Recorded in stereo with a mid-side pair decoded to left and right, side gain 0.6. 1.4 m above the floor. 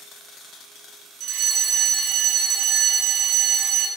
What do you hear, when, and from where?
1.2 s a fire alarm: 60° right, 3.5 m